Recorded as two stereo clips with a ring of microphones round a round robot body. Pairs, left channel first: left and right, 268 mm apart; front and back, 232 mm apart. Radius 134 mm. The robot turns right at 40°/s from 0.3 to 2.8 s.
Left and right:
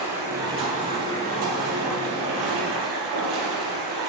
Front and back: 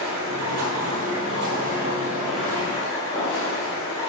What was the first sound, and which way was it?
Running water, 170° right.